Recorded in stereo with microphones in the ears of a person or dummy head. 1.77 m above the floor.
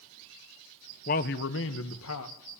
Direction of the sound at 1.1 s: 45° left (ahead or behind).